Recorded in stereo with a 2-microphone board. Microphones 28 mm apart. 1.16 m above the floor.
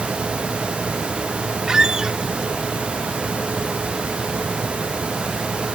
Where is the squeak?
25° right (ahead or behind), 0.7 m.